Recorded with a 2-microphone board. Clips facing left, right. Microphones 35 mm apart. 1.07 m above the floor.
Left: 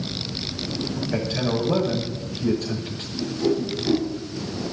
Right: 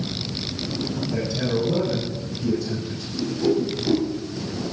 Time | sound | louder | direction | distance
1.1 | a man speaking | left 1 dB | 55° left (ahead or behind) | 7.5 m
3.1 | a whoosh | right 2 dB | 10° left (ahead or behind) | 9.5 m